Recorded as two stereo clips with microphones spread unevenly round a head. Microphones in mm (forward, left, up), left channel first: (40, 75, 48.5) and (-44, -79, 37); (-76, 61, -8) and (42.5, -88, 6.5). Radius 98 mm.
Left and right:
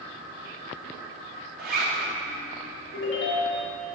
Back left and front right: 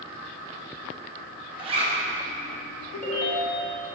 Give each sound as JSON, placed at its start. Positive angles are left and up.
{"t": 1.6, "sound": "a zipper", "azimuth_deg": -115, "distance_m": 1.7}
{"t": 2.9, "sound": "a ringtone", "azimuth_deg": 80, "distance_m": 1.7}